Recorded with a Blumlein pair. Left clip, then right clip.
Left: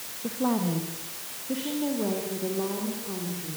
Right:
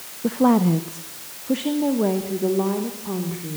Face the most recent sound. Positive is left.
turn(degrees=-25)